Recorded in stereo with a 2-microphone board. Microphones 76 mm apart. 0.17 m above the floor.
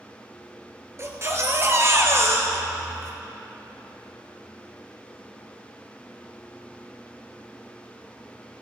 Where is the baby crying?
40° right (ahead or behind), 1.5 m.